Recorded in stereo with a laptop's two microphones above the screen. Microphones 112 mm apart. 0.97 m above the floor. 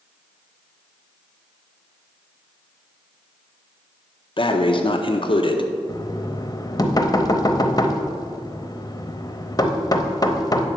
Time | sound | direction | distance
4.4 | breathing | 50° left (ahead or behind) | 0.5 m
5.9 | knocking | 35° left (ahead or behind) | 0.7 m